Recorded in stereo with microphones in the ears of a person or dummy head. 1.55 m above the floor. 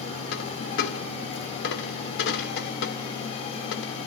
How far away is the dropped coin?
About 1.9 m.